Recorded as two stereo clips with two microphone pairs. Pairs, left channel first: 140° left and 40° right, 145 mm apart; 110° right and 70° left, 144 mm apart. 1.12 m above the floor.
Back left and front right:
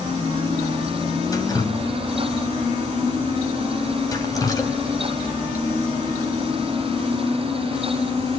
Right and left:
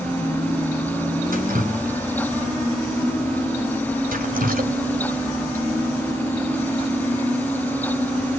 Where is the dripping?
70° left, 3 m.